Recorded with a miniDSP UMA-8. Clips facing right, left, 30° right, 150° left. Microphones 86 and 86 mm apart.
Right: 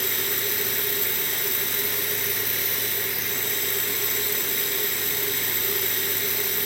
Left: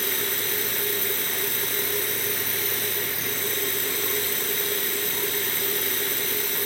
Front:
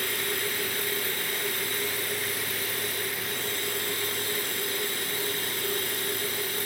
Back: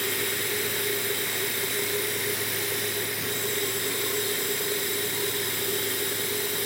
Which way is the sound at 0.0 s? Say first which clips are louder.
Even, back 1 dB; 145° left.